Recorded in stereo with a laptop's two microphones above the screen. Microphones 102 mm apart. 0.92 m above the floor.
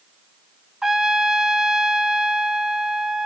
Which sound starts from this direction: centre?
A trumpet, at 0.8 s.